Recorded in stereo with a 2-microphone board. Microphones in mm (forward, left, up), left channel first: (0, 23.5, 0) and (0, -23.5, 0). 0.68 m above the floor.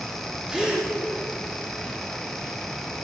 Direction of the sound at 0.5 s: 20° right (ahead or behind).